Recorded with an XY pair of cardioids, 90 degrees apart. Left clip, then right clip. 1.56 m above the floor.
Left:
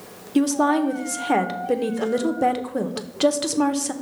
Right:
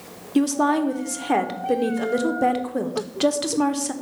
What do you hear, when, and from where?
0.3 s a woman speaking: 10° left, 0.7 m